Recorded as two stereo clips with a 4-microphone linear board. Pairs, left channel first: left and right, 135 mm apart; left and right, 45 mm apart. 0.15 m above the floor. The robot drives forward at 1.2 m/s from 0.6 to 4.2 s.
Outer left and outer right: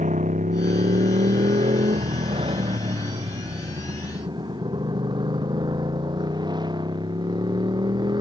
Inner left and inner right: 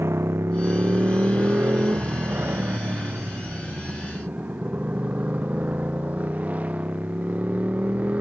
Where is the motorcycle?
65° right (ahead or behind); by 8.2 s 30° right (ahead or behind).